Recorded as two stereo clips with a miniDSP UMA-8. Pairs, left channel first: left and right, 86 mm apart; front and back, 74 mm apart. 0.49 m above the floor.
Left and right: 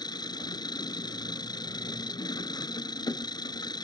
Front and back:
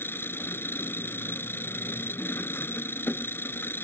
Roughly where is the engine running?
Ahead left.